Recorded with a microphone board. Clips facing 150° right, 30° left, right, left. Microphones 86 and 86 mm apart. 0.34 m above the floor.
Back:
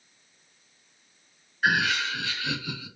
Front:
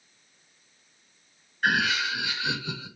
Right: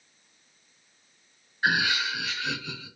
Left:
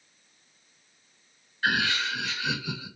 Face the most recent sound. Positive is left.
turn(degrees=25)